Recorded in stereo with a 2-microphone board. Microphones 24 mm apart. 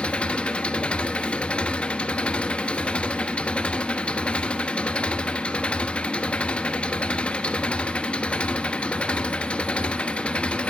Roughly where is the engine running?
Left.